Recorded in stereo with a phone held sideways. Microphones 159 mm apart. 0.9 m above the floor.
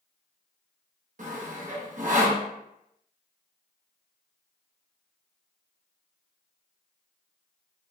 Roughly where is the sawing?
Right.